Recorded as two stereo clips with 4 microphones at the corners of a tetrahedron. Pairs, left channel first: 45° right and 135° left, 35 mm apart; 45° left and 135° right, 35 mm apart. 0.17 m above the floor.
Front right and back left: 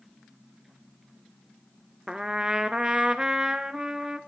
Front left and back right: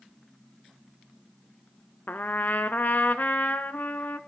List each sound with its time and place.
2.1 s a trumpet: 70° left, 0.6 m